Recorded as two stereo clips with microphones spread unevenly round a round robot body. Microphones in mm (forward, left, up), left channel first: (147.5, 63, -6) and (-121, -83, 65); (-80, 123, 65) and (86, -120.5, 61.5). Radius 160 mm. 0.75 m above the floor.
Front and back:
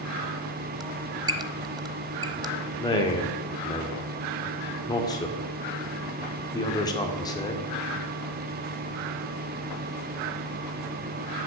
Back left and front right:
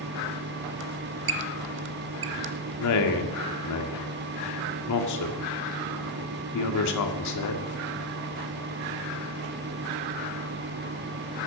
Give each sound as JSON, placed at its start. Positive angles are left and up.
{"t": 0.8, "sound": "a squeak", "azimuth_deg": -95, "distance_m": 0.7}
{"t": 2.8, "sound": "a man speaking", "azimuth_deg": 100, "distance_m": 1.9}